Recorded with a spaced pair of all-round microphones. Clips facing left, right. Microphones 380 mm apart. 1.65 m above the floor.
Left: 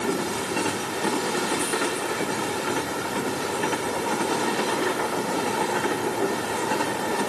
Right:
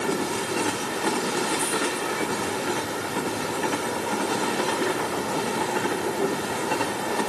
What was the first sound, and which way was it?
Only background noise.